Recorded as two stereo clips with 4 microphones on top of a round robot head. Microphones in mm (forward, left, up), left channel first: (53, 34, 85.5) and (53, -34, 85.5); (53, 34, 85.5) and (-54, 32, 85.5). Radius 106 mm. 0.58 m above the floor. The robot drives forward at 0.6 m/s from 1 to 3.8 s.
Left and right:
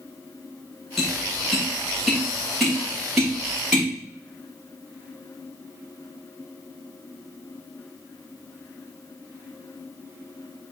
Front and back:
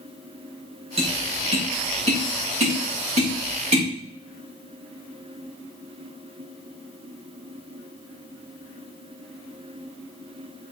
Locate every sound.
1.0 s tapping: straight behind, 2 m